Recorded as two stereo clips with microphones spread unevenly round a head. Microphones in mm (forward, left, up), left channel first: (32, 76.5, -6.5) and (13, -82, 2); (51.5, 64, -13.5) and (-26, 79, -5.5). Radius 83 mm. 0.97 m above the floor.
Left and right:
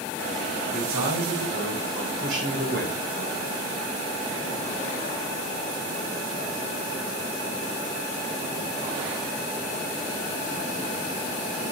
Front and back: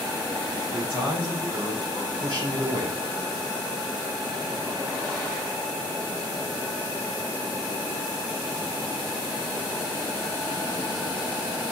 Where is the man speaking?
105° right, 6 m; by 3.0 s 135° right, 4 m.